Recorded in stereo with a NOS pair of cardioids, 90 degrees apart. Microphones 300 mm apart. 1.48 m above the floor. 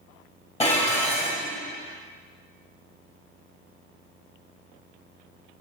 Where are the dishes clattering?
20° left, 1.6 m.